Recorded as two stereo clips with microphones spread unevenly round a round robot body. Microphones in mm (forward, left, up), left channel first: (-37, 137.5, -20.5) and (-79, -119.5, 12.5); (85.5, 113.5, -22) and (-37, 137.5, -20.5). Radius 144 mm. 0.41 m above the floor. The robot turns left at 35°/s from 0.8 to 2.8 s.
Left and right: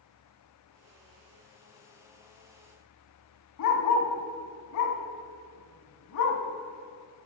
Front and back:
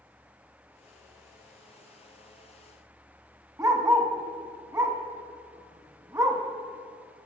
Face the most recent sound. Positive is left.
turn(degrees=100)